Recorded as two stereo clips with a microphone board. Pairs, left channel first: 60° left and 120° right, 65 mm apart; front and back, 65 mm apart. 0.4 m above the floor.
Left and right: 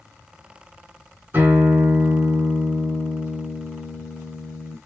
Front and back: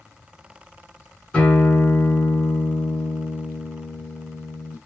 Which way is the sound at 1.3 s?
70° right.